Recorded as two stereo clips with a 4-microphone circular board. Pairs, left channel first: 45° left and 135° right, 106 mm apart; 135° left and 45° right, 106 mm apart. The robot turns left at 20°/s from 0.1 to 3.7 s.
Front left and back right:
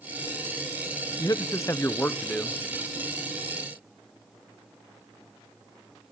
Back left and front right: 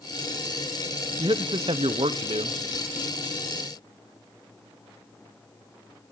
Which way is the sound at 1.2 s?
5° right.